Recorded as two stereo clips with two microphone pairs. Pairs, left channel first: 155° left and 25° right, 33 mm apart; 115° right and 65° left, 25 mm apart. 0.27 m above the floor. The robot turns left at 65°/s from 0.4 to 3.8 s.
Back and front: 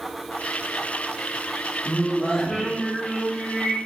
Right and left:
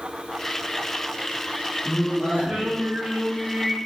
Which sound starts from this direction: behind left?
Singing, at 1.9 s.